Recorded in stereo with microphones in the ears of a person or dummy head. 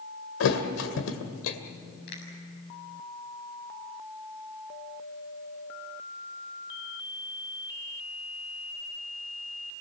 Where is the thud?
70° left (ahead or behind), 2 m.